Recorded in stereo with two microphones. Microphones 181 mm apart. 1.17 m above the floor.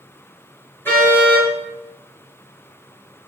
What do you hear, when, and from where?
0.8 s a car horn: 10° left (ahead or behind), 9 m